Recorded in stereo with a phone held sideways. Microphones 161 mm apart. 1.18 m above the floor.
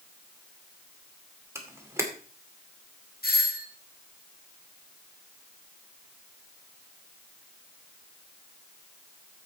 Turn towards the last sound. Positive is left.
turn(degrees=70)  # may be behind; listen again after turning